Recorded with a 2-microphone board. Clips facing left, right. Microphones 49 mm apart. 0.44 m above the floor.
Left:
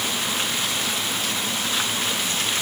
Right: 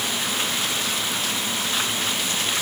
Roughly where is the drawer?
I don't hear a drawer.